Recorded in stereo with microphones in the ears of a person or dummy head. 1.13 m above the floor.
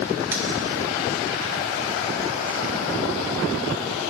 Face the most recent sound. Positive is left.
turn(degrees=-10)  # may be behind; listen again after turning